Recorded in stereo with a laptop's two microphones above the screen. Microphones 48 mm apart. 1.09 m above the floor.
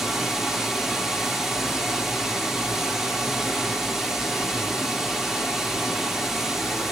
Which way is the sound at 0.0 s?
5° right (ahead or behind).